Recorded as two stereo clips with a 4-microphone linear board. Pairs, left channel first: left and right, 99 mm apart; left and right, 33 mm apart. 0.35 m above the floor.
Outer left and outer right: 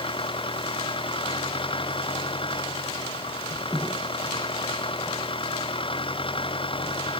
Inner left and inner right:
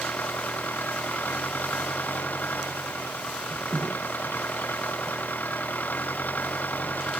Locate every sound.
0.0 s an engine running: 65° left (ahead or behind)